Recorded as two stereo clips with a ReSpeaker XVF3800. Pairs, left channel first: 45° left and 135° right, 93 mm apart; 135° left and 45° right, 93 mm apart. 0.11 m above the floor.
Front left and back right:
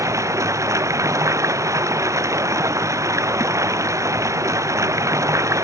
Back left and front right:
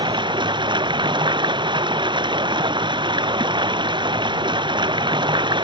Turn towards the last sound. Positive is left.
turn(degrees=-80)